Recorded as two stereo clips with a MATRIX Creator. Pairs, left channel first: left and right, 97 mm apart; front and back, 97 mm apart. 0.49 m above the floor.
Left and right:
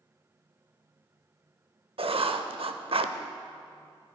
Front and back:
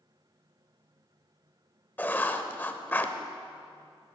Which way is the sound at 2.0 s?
70° right.